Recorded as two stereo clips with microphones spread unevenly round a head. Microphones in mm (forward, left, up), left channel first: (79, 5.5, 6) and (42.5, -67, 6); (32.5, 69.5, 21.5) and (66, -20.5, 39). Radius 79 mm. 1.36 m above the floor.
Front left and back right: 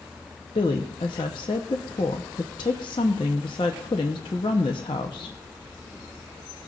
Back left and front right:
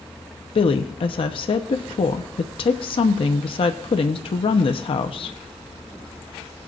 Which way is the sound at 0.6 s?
105° left.